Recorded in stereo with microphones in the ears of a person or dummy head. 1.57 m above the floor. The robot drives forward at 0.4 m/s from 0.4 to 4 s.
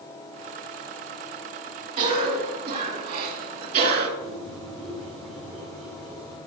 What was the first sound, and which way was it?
A cough, 35° right (ahead or behind).